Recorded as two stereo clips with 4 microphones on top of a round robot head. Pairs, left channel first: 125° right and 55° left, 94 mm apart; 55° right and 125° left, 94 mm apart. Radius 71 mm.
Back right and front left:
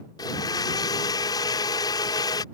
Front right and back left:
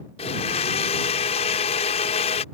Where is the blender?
75° right.